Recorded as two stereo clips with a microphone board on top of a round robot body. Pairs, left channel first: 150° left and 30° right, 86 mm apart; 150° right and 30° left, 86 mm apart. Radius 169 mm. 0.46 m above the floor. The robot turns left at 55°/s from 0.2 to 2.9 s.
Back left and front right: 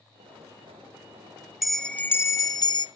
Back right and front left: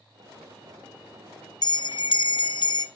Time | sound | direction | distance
1.6 | a bell | 120° right | 0.8 m